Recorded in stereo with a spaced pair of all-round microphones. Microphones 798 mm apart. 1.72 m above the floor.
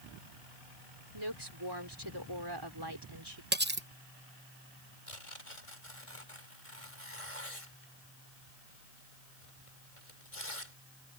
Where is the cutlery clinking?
15° right (ahead or behind).